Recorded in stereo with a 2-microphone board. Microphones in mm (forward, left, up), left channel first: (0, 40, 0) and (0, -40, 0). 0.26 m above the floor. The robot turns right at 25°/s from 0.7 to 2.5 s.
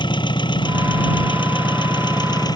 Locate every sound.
0.0 s an engine running: 80° left; by 2.6 s 125° left